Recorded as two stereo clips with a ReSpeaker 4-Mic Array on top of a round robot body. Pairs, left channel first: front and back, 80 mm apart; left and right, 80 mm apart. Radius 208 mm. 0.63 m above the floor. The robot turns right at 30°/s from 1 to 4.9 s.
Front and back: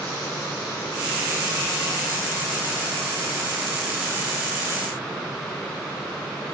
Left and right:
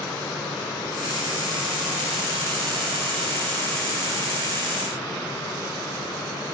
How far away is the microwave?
I don't hear a microwave.